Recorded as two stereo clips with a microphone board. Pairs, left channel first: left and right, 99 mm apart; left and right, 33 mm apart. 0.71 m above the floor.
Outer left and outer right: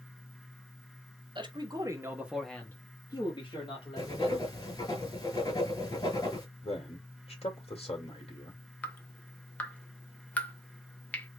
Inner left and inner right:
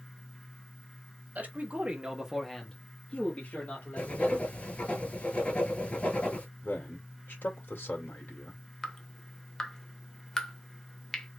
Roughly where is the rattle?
No rattle in this recording.